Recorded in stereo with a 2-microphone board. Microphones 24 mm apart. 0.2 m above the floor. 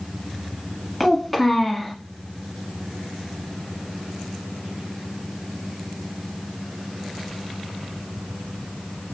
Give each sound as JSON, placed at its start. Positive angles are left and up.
{"t": 1.0, "sound": "a child speaking", "side_deg": 5, "distance_m": 1.2}